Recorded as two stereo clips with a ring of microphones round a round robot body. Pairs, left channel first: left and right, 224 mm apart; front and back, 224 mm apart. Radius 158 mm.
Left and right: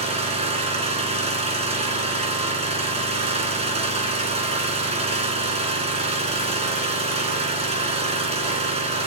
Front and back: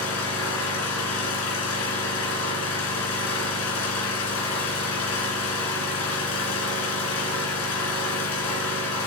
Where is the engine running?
30° right, 2.5 m.